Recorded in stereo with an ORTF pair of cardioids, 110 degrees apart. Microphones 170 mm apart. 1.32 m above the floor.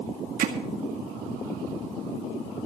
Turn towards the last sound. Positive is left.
turn(degrees=-55)